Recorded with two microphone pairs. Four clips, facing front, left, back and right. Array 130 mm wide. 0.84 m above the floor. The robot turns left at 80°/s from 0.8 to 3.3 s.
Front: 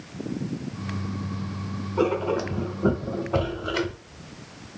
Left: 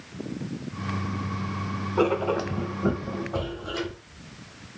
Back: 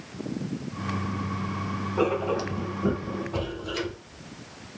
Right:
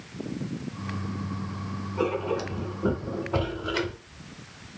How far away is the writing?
About 0.7 m.